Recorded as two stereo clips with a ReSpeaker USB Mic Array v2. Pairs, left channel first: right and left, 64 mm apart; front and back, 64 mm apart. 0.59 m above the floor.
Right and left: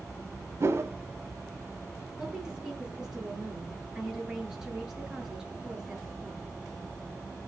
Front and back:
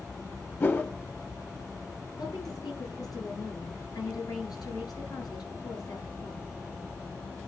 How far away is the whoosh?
About 2 m.